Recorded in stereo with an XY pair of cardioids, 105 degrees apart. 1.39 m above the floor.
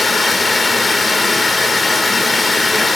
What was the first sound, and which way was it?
Running water, 20° left.